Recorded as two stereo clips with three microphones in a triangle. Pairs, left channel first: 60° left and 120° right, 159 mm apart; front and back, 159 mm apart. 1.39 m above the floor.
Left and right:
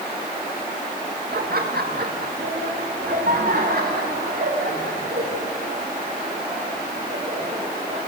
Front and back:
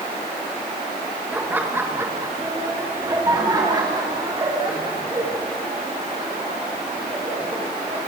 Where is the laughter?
100° right, 1.7 m; by 8.0 s 125° right, 5.5 m.